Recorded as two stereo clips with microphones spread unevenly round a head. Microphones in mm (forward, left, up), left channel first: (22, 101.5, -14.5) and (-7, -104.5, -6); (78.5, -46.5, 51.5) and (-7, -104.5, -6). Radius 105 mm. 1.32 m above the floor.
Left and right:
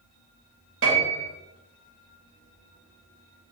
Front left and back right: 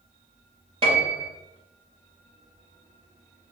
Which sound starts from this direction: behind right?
A piano, at 0.8 s.